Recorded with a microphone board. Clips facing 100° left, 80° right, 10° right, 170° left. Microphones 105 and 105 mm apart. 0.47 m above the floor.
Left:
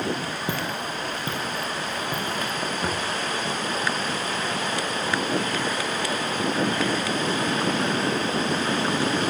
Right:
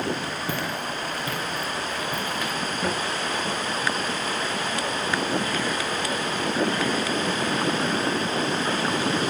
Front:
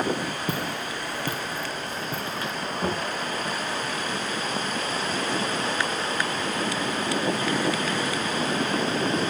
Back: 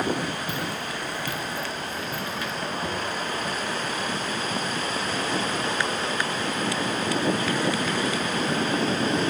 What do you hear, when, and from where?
0.5 s footsteps: 30° left, 4 m; by 2.5 s 45° left, 2.5 m
2.8 s knocking: 20° left, 5.5 m